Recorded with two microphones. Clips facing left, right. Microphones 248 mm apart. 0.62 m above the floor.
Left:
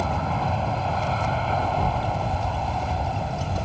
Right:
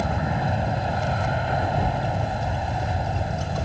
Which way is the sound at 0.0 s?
15° right (ahead or behind).